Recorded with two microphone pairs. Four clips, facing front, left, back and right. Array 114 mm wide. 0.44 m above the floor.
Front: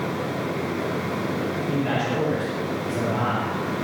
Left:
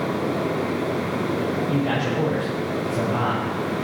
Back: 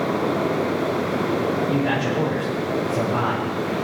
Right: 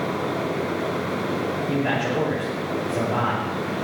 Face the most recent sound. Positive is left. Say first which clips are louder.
# even, back 3 dB
turn(degrees=-105)